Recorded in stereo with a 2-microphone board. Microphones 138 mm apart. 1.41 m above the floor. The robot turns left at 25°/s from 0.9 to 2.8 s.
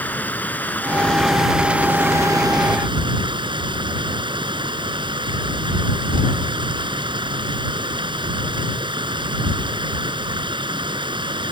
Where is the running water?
10° left; by 11.5 s 35° right.